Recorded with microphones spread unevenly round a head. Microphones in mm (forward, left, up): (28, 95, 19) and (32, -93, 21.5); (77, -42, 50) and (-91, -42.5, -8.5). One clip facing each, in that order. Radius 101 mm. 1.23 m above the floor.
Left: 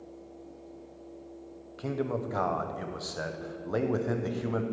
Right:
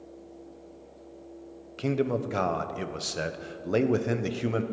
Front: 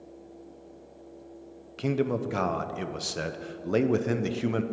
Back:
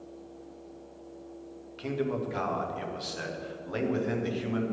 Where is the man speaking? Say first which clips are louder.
Right 5 dB, front 4 dB; 35° right, 0.5 m.